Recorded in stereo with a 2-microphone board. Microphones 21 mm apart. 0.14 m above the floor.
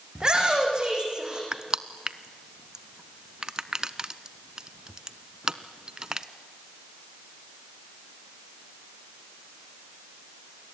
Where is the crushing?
30° right (ahead or behind), 0.8 m.